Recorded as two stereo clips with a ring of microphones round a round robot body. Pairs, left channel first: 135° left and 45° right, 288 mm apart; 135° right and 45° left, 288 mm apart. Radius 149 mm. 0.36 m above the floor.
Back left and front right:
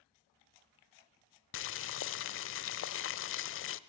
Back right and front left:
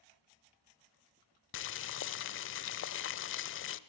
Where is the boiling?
Straight behind, 0.9 m.